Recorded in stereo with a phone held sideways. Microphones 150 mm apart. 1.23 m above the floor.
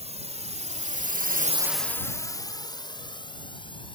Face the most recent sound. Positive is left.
turn(degrees=35)  # may be behind; listen again after turning